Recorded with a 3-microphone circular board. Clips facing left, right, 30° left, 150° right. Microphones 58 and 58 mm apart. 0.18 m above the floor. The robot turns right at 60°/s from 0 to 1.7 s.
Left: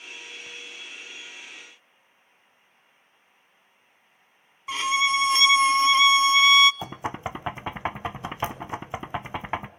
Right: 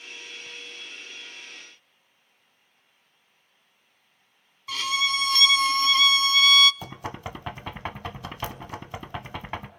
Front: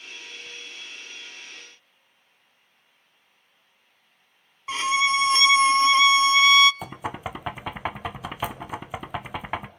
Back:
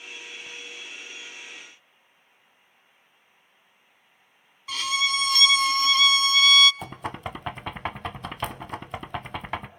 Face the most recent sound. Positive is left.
turn(degrees=105)